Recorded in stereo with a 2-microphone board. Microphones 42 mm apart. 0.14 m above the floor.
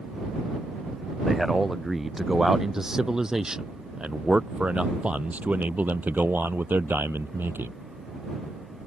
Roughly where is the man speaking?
Centre.